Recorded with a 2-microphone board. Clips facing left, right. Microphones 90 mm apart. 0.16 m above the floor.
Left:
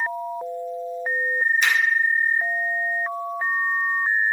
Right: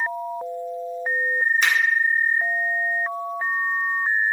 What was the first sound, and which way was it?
A finger snap, 45° right (ahead or behind).